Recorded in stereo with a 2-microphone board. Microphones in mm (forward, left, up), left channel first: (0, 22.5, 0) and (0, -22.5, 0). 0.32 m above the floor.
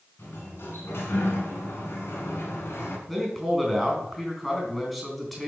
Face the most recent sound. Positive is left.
turn(degrees=0)  # may be behind; listen again after turning